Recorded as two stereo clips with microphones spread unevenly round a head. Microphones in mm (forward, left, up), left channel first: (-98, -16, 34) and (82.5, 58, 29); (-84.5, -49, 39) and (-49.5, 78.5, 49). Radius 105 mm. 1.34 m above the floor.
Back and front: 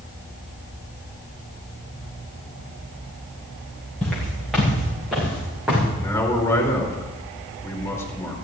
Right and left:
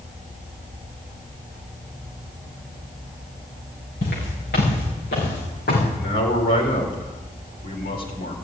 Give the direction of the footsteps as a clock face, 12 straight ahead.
2 o'clock.